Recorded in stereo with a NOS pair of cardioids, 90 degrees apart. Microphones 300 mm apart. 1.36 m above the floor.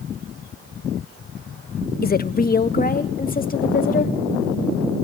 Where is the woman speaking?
30° left, 1.1 m.